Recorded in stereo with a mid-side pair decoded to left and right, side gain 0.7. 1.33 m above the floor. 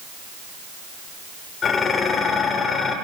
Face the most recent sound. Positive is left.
turn(degrees=35)